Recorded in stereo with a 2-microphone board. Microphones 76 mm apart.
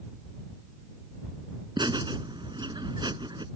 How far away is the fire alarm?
No fire alarm in this recording.